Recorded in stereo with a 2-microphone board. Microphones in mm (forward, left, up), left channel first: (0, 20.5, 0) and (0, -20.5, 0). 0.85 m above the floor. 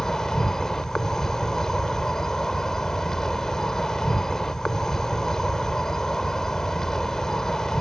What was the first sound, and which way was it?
An insect, 10° left (ahead or behind).